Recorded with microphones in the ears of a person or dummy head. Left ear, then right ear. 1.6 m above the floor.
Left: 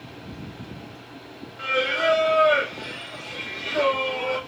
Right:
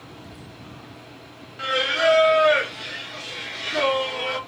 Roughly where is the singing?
Right.